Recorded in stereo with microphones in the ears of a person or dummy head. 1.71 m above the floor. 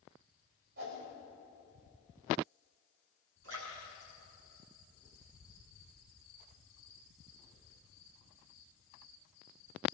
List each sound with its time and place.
0.8 s a whoosh: 65° right (ahead or behind), 6 m
3.4 s a splash: 80° right, 7.5 m